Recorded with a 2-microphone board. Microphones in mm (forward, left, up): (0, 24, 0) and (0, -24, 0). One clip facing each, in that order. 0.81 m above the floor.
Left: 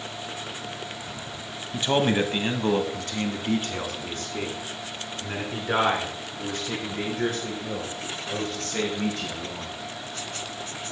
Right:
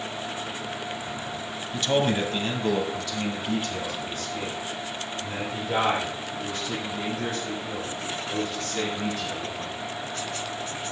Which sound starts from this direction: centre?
A man speaking, at 1.7 s.